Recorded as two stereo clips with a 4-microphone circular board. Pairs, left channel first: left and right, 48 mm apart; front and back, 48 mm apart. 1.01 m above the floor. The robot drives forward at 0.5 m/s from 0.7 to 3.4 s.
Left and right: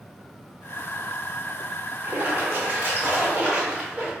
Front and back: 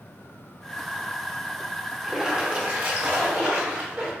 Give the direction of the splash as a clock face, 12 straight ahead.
3 o'clock.